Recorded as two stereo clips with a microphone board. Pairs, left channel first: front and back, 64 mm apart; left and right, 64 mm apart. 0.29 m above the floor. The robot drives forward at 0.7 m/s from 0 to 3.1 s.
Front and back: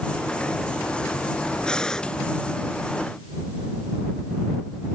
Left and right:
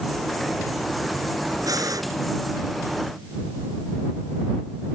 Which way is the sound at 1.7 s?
80° right.